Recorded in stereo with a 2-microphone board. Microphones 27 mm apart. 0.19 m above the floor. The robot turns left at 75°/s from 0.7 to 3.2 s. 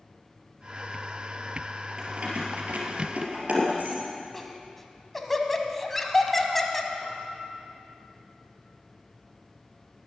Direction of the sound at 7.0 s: 40° right (ahead or behind).